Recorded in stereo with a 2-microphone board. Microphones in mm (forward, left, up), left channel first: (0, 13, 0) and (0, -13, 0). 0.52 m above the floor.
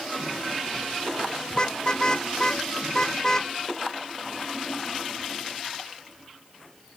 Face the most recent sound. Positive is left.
turn(degrees=25)  # may be behind; listen again after turning